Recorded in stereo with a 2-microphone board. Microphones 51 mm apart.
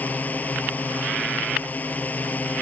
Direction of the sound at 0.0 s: 35° left (ahead or behind).